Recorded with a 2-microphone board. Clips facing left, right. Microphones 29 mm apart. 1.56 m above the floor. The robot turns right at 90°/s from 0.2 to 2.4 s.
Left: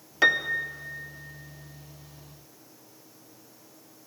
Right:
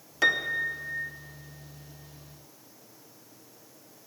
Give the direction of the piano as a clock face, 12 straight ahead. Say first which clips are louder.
Left 2 dB; 7 o'clock.